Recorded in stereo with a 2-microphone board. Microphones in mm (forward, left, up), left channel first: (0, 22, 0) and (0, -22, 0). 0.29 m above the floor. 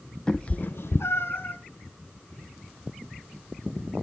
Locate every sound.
0.3 s a cat meowing: 15° left (ahead or behind), 0.9 m; by 1.6 s 50° left (ahead or behind), 1.3 m